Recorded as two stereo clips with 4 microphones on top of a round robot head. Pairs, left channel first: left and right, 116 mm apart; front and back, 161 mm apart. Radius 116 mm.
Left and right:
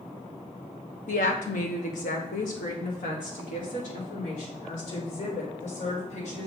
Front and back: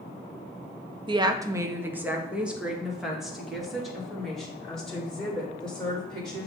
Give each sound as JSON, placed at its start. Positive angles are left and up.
{"t": 1.1, "sound": "a woman speaking", "azimuth_deg": 125, "distance_m": 0.6}